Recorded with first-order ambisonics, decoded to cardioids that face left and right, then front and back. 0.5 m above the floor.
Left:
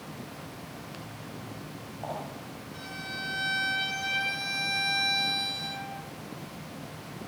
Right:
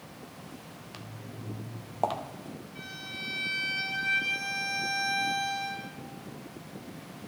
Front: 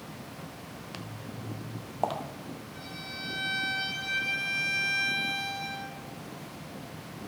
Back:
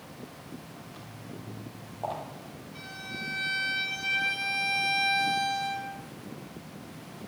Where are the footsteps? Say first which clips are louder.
Left 3 dB, front 3 dB; 10° right, 0.6 m; by 2.2 s 55° right, 1.1 m.